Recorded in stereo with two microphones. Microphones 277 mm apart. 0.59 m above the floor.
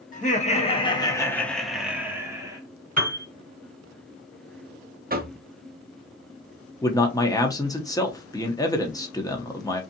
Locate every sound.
0.1 s laughter: 30° left (ahead or behind), 0.8 m; by 2.6 s 10° right (ahead or behind), 1.0 m
3.0 s a piano: 30° right (ahead or behind), 1.1 m
5.1 s knocking: 35° right (ahead or behind), 0.6 m
6.8 s a man speaking: 15° left (ahead or behind), 0.6 m